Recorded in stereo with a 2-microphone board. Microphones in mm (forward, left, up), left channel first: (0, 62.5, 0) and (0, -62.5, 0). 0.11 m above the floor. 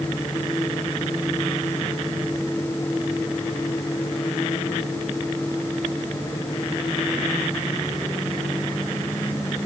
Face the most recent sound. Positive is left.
No sound to turn to.